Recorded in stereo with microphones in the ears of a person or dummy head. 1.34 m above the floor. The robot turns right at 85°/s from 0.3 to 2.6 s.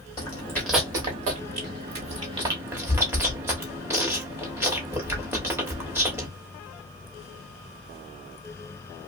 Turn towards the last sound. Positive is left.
turn(degrees=-15)  # may be behind; listen again after turning